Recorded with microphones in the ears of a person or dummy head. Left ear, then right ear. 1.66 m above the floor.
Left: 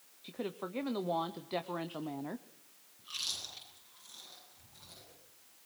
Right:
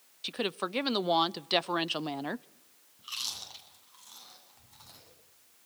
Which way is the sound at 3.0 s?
65° right (ahead or behind).